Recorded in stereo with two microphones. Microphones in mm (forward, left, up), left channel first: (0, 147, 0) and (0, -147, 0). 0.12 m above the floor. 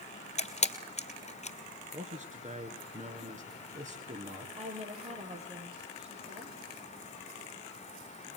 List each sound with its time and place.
0.4 s a camera shutter: 25° left (ahead or behind), 1.8 m
1.9 s a man speaking: 25° right (ahead or behind), 1.7 m
4.6 s a woman speaking: 25° right (ahead or behind), 4 m